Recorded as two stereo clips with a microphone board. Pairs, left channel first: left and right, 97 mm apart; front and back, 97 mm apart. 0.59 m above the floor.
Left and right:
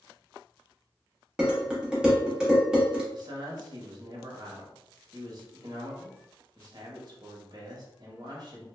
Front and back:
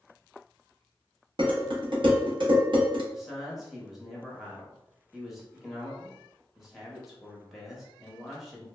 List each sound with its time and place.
1.4 s dishes clattering: 170° right, 0.9 m
3.1 s a man speaking: 95° right, 0.9 m